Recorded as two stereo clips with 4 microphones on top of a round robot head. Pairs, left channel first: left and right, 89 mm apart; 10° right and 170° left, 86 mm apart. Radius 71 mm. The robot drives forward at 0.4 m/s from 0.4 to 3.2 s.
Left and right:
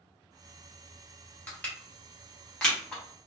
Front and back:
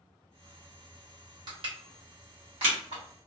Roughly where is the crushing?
Behind.